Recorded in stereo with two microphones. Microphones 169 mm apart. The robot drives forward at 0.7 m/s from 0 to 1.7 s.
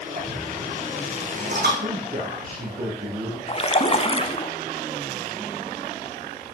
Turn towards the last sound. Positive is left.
turn(degrees=35)  # may be behind; listen again after turning